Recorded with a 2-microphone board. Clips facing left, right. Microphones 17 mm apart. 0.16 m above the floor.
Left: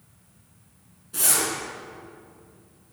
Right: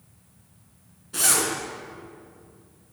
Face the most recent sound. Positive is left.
turn(degrees=-25)  # may be behind; listen again after turning